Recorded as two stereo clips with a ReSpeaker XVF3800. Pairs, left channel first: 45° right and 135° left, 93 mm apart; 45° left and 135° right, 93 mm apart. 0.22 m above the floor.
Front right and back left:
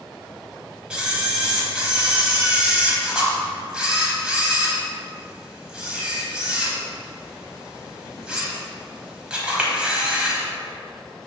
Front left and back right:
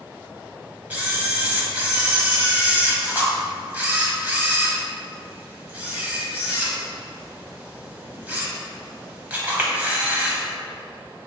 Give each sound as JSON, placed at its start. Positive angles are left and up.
{"t": 0.9, "sound": "a camera shutter", "azimuth_deg": -170, "distance_m": 0.9}